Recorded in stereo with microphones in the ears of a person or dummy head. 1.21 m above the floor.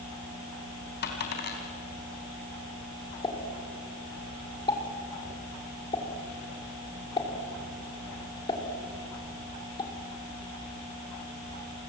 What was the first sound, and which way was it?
A dropped coin, 50° left (ahead or behind).